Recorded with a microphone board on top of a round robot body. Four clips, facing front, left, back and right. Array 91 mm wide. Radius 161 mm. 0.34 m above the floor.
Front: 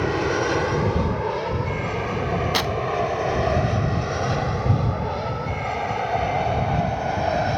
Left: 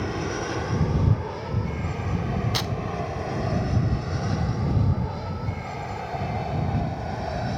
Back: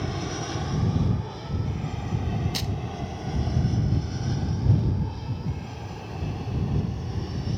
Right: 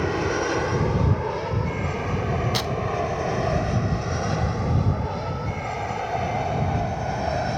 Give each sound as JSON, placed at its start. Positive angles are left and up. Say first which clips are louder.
{"t": 0.0, "sound": "an aircraft", "louder": "right 5 dB, front 10 dB", "azimuth_deg": -25}
{"t": 2.5, "sound": "tearing paper", "louder": "right 3 dB, front 10 dB", "azimuth_deg": 0}